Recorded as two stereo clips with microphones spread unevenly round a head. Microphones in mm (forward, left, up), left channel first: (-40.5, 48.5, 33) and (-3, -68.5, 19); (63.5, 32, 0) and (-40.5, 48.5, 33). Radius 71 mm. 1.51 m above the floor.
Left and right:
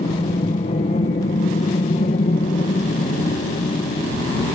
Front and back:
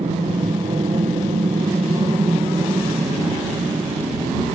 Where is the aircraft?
135° left; by 4.5 s 120° left.